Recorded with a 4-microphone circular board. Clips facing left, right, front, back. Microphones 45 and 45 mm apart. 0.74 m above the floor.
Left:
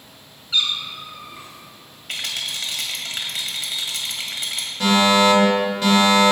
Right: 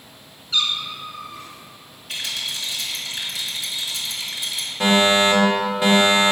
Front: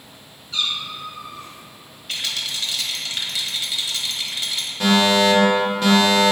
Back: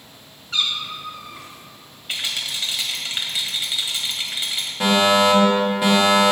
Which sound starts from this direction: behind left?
A rattle, at 2.1 s.